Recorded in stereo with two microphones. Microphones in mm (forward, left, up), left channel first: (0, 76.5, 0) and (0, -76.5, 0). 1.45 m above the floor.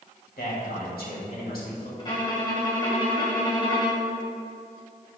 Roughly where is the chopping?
No chopping in this recording.